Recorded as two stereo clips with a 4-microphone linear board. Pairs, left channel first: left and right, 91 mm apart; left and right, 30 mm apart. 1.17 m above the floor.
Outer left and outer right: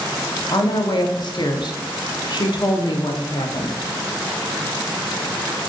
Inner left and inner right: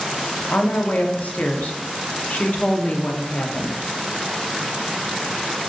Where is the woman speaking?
55° left (ahead or behind), 0.5 m.